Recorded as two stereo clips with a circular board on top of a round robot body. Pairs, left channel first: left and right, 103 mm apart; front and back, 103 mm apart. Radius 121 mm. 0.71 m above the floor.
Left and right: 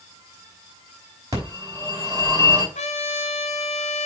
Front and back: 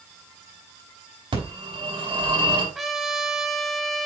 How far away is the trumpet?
About 0.8 m.